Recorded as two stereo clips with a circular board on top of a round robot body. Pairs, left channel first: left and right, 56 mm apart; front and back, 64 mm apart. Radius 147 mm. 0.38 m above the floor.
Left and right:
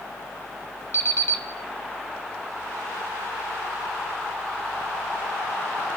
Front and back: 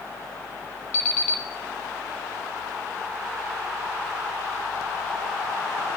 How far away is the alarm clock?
About 1.7 m.